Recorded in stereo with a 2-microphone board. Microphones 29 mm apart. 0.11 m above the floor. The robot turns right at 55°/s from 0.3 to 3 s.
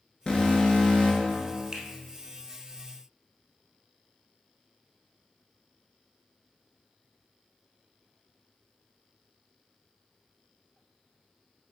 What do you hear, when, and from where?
0.3 s an alarm: 50° left, 1.0 m; by 1.7 s 125° left, 1.0 m
1.7 s a finger snap: 25° right (ahead or behind), 1.3 m; by 1.9 s 20° right (ahead or behind), 1.3 m